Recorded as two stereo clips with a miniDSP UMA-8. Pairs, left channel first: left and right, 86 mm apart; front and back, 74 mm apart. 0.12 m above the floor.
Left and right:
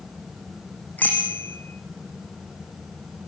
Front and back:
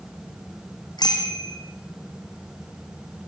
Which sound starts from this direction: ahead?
A bicycle bell, at 1.0 s.